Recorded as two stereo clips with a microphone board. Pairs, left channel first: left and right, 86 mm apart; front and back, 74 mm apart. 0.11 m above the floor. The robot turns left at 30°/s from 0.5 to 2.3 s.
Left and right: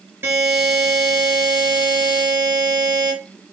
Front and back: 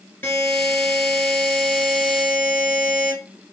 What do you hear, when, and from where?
0.2 s a buzzer: 40° right, 2 m; by 3.1 s 95° right, 2 m